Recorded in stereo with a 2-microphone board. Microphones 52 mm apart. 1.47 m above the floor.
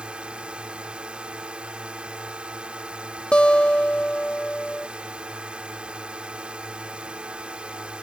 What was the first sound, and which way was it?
A drone, 20° right (ahead or behind).